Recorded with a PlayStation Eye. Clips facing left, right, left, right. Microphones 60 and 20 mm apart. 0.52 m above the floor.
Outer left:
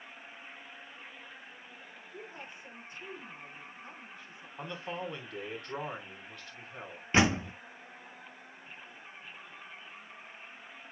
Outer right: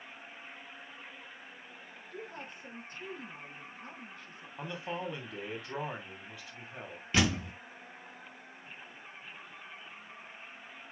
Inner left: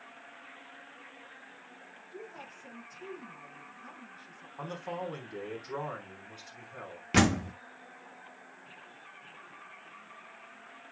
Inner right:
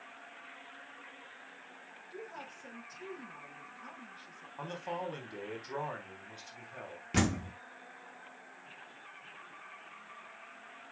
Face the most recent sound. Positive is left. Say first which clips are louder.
# outer left 4 dB, inner left 6 dB
turn(degrees=35)  # may be behind; listen again after turning